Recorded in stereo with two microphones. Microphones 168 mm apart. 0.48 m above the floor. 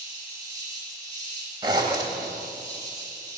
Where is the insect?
20° right (ahead or behind), 10 m.